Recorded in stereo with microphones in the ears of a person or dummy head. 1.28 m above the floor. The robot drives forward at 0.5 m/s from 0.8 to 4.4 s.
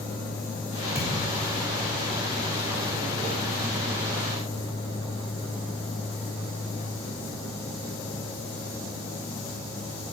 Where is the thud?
10° right (ahead or behind), 2.5 m.